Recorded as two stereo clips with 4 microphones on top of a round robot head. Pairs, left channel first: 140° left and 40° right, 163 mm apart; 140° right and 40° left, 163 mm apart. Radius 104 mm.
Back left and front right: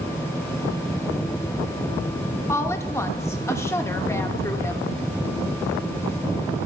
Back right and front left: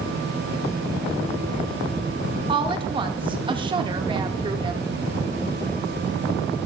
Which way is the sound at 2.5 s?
75° left.